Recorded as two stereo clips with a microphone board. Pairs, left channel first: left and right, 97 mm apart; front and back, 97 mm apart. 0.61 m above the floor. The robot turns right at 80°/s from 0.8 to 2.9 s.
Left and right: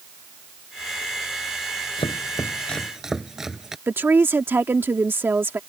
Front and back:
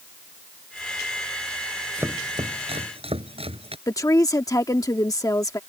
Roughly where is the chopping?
Left.